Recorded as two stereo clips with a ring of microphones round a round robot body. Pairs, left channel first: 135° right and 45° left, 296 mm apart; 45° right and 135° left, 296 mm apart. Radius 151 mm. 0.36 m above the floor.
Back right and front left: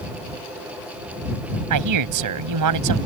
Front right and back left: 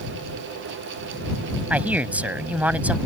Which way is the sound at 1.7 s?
50° left.